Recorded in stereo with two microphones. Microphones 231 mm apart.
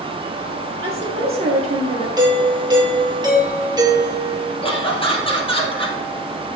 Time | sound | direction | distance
0.8 | a woman speaking | 25° right (ahead or behind) | 2.5 m
2.2 | a doorbell | 20° right (ahead or behind) | 3.5 m
4.6 | laughter | 25° left (ahead or behind) | 2.5 m